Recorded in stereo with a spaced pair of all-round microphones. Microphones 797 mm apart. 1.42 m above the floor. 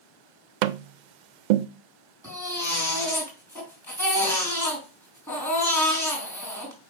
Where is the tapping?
70° right (ahead or behind), 0.5 m.